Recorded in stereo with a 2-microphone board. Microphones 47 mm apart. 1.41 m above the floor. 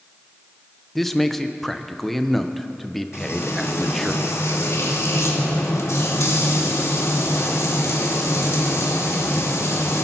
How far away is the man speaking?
About 0.8 m.